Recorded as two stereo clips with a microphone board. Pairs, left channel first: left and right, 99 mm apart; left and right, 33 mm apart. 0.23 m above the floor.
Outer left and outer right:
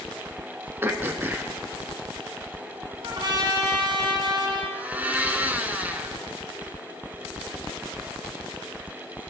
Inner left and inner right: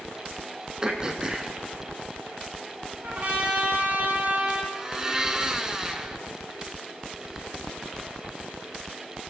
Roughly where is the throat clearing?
Right.